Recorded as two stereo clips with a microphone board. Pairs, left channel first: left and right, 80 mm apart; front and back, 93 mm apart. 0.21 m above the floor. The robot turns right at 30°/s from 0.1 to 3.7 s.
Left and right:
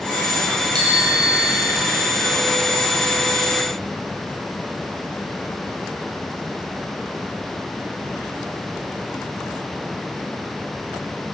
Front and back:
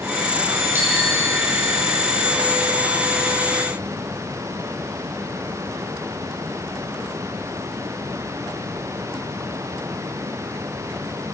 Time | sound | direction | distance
0.8 | a bicycle bell | 115° right | 4 m